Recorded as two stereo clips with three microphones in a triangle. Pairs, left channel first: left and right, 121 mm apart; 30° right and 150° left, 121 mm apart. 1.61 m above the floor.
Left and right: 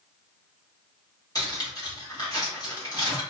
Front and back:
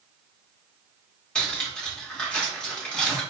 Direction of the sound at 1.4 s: 50° left.